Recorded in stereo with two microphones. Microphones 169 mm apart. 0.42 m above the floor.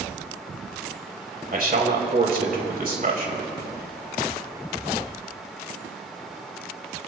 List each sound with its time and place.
1.5 s a man speaking: 60° right (ahead or behind), 2 m